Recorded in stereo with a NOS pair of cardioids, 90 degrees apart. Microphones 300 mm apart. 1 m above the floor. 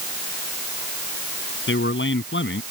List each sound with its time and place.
1.7 s a man speaking: 40° left